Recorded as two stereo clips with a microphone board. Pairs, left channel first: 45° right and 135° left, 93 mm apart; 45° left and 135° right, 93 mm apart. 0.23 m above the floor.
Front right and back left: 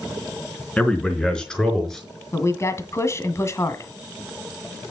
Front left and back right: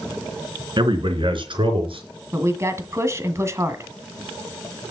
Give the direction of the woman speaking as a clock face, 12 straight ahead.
3 o'clock.